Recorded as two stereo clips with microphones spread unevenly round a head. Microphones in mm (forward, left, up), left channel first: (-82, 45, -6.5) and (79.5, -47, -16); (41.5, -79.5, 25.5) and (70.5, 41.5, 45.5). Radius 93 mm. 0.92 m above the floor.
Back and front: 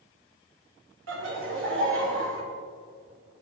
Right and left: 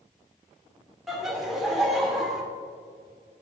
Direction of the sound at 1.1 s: 10° right.